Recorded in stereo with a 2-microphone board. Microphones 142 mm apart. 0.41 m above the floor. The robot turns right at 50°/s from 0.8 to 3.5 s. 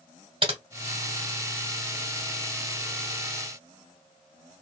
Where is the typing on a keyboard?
40° right (ahead or behind), 1.0 m.